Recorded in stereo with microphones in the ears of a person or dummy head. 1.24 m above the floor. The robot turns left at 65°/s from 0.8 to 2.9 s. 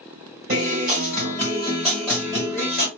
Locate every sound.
0.5 s a guitar: 110° right, 1.3 m; by 2.9 s 115° left, 1.3 m